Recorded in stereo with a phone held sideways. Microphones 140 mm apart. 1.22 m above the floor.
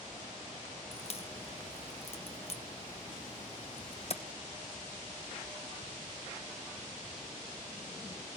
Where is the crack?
50° left (ahead or behind), 0.7 m.